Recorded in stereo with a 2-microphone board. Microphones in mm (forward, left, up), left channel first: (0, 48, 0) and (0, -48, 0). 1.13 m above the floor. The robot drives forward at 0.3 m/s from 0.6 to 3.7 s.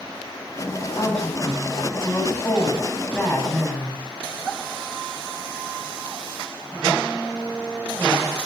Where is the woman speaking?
15° left (ahead or behind), 9 m.